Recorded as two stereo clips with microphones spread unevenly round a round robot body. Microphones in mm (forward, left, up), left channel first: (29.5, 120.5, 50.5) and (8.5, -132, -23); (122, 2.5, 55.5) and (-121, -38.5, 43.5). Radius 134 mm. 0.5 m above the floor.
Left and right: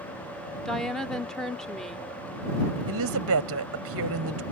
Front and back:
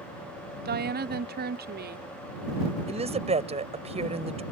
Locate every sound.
0.7 s a woman speaking: 170° right
2.9 s a woman speaking: 110° right